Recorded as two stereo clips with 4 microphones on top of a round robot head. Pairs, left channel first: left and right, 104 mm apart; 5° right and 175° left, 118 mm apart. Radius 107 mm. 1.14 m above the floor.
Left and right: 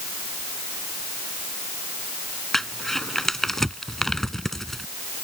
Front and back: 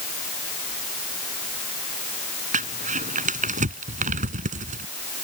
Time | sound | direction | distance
2.5 | crumpling | 175° left | ?